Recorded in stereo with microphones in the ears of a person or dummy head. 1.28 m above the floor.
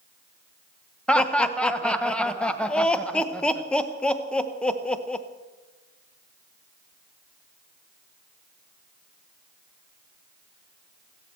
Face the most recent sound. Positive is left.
turn(degrees=10)  # may be behind; listen again after turning